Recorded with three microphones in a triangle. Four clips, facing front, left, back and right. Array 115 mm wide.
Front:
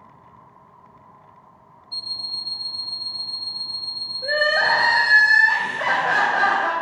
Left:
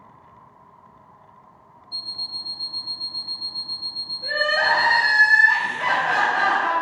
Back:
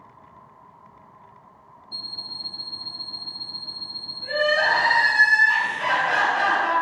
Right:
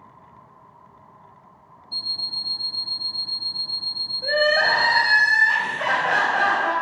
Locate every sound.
1.9 s an alarm clock: 155° right, 1.0 m
4.2 s crying: 40° right, 3.5 m